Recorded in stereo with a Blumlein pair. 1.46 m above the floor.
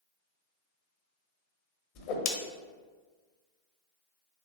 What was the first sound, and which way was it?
A whoosh, 45° left.